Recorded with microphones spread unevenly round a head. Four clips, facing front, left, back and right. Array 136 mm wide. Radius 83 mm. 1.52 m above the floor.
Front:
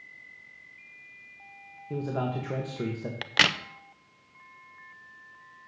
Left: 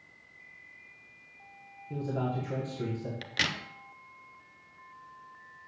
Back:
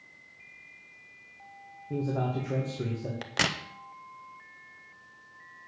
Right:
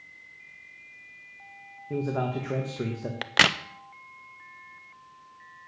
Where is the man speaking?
50° right, 1.9 m.